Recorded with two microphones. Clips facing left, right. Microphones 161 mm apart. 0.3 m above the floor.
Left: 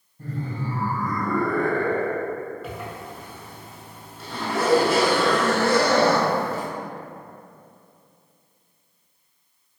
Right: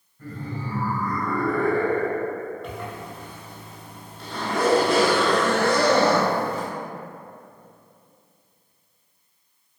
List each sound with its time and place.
0.2 s laughter: 35° left (ahead or behind), 1.6 m; by 2.4 s 30° right (ahead or behind), 1.1 m
2.6 s a zipper: centre (ahead or behind), 0.7 m